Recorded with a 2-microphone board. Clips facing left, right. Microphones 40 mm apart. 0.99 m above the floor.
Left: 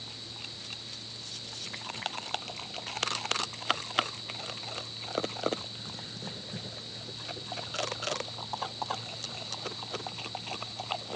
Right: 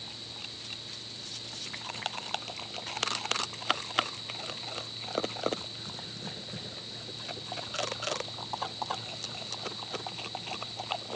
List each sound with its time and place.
Only background noise.